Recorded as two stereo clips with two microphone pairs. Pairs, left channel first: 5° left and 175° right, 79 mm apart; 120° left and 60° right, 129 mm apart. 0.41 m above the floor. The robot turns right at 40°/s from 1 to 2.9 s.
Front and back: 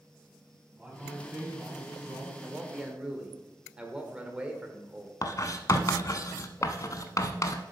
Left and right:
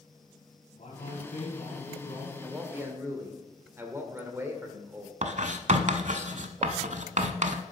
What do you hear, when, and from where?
0.8 s a man speaking: 110° left, 3 m; by 2.3 s 160° left, 3 m
2.4 s a man speaking: 130° right, 1.6 m; by 5.1 s 110° right, 1.6 m
5.2 s writing: 40° right, 0.8 m